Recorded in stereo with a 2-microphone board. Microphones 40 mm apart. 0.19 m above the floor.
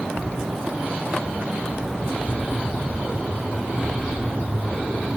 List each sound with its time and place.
0.2 s footsteps: 5° left (ahead or behind), 0.7 m; by 5.1 s 15° left (ahead or behind), 4 m